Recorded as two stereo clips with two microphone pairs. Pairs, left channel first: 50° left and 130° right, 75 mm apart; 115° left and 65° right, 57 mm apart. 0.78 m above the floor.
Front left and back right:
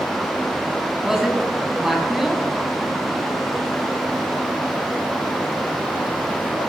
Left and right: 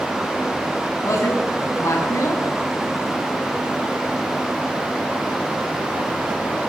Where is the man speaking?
145° left, 6.5 m.